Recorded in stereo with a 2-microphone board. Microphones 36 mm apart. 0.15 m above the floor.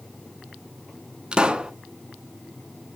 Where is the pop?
25° right (ahead or behind), 0.8 m.